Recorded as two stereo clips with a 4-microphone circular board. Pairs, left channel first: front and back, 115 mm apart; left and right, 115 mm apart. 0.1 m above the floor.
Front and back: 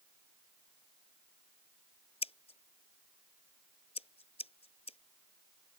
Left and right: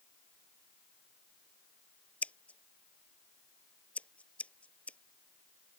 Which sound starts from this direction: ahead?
Scissors, at 2.2 s.